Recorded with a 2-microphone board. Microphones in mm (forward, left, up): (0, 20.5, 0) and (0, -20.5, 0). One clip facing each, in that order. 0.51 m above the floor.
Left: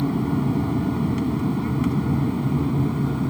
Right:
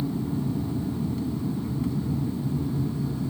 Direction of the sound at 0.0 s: 70° left (ahead or behind).